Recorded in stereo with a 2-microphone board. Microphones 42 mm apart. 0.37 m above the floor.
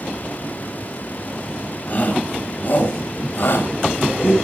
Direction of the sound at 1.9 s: 40° left (ahead or behind).